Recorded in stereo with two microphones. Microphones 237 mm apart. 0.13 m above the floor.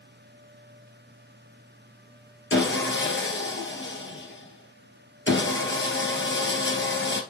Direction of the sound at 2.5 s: 55° left (ahead or behind).